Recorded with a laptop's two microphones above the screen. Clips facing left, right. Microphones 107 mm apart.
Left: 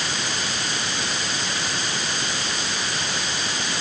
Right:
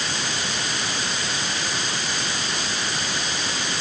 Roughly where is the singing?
No singing in this recording.